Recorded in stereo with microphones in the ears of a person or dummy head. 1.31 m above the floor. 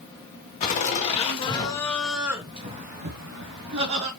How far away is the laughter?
About 1.6 m.